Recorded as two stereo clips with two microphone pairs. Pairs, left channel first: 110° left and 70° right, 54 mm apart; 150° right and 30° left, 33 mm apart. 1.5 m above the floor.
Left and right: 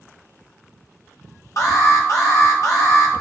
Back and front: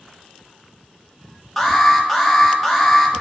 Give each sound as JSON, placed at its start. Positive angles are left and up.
{"t": 1.6, "sound": "an alarm", "azimuth_deg": 120, "distance_m": 1.6}